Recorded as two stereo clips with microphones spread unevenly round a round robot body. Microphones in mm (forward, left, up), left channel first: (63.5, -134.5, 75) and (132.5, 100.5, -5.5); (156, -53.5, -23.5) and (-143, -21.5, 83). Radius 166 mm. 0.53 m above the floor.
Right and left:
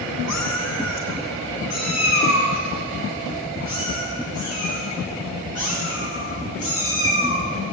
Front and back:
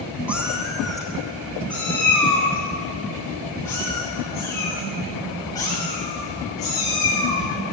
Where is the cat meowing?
105° right, 3.5 m; by 7.4 s 85° right, 14 m.